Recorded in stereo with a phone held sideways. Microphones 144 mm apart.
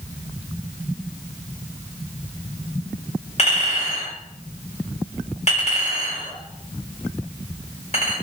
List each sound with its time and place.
3.4 s a clink: 50° left (ahead or behind), 1.8 m